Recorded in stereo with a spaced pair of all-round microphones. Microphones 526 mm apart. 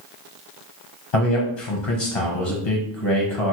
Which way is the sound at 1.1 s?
60° left (ahead or behind).